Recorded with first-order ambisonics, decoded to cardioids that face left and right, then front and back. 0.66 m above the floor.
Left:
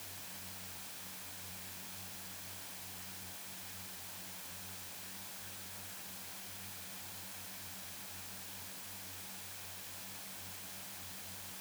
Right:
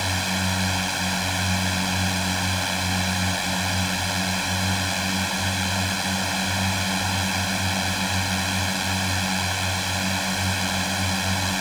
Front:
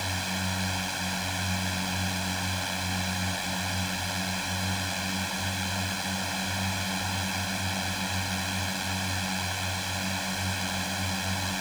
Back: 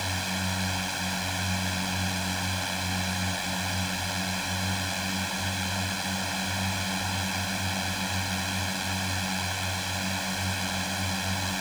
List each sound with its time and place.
0.0 s a drone: 95° right